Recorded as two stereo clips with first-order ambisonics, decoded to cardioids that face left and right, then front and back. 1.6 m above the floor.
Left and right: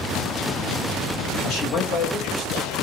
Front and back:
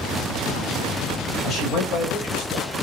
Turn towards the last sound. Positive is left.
turn(degrees=45)